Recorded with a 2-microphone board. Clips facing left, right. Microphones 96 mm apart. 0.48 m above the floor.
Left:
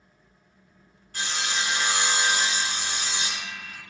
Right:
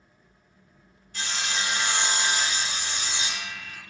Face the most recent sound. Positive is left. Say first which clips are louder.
# left 1 dB
turn(degrees=60)  # may be behind; listen again after turning